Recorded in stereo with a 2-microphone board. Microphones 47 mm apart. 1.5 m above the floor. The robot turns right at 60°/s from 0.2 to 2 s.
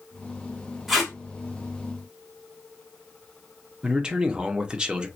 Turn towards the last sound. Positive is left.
turn(degrees=-20)  # may be behind; listen again after turning